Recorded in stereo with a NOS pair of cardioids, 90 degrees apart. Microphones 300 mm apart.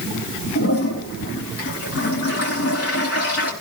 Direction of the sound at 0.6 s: 50° left.